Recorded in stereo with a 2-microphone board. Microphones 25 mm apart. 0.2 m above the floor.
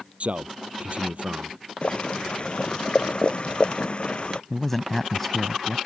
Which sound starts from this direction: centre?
A man speaking, at 4.5 s.